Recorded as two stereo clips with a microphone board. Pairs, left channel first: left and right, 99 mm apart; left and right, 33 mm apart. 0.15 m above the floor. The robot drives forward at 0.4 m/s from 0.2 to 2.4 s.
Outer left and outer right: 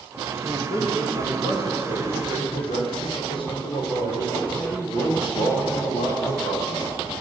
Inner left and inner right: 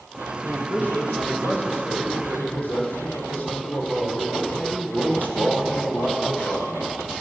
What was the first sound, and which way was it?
A man speaking, 60° left (ahead or behind).